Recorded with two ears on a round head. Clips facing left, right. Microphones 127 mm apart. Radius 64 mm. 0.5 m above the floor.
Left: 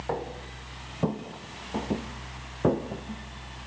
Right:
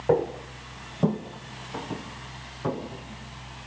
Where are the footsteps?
40° right (ahead or behind), 1.8 m; by 3.7 s 65° left (ahead or behind), 2.5 m.